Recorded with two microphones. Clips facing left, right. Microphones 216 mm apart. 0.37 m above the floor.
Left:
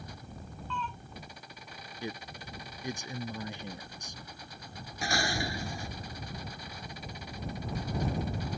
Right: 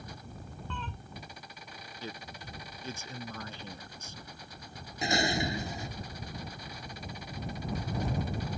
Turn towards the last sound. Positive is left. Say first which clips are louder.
# right 3 dB
turn(degrees=-20)  # may be behind; listen again after turning